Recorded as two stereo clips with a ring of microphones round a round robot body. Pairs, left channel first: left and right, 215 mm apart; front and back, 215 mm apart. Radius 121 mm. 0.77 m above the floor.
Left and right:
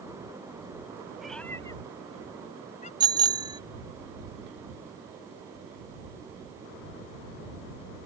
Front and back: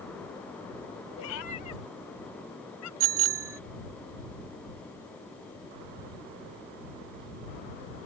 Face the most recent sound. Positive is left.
turn(degrees=-160)